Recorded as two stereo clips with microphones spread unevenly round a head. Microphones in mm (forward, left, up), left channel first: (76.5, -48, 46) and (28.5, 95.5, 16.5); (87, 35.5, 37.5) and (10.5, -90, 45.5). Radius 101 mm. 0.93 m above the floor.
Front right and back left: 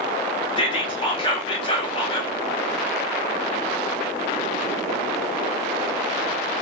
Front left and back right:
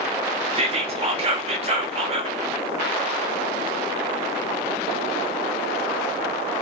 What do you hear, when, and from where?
0.6 s whispering: 125° right, 0.5 m